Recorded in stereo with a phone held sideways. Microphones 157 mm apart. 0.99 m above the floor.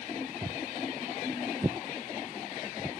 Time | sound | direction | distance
0.4 | footsteps | 25° right (ahead or behind) | ?